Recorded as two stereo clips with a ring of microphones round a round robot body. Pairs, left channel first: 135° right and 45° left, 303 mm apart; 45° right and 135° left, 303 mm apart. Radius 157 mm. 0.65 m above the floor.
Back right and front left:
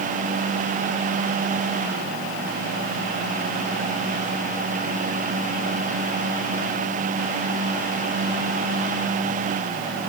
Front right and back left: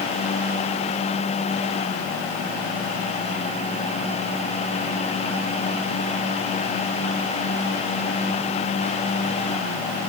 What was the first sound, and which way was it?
Only background noise.